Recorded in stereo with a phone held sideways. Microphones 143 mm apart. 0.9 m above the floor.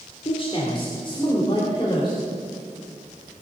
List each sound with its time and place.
0.2 s a man speaking: 40° left (ahead or behind), 2.5 m; by 2.2 s 30° left (ahead or behind), 3.5 m